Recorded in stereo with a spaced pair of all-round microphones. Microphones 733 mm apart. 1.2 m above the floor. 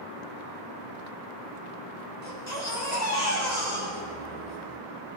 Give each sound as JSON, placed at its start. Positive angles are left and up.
{"t": 2.2, "sound": "a baby crying", "side_deg": 65, "distance_m": 6.0}